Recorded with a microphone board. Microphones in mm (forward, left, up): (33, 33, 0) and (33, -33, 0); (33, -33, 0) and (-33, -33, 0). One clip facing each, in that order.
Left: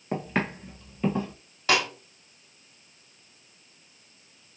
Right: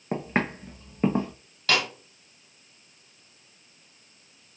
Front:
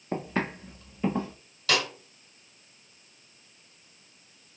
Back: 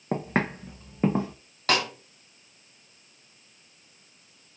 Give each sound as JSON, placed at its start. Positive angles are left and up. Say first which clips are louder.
{"t": 0.1, "sound": "footsteps", "louder": "right 1 dB, back 3 dB", "azimuth_deg": -160, "distance_m": 1.7}
{"t": 1.7, "sound": "a snare drum", "louder": "left 1 dB, back 2 dB", "azimuth_deg": 155, "distance_m": 1.2}